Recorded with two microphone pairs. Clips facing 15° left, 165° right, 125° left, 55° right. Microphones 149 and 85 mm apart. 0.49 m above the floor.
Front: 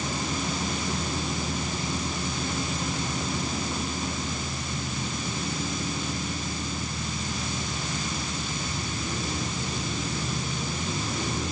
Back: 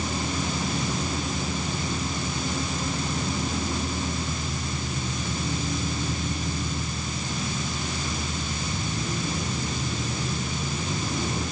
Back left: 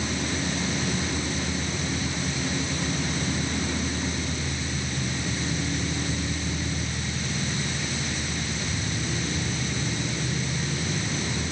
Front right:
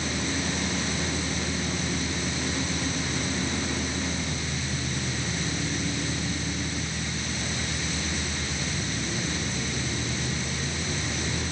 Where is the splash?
I don't hear a splash.